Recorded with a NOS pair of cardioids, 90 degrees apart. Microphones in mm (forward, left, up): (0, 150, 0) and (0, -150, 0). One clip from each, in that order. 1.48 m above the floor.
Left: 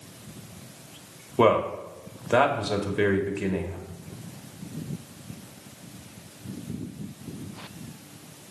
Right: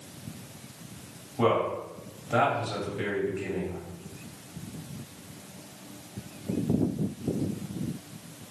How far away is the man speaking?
About 1.3 m.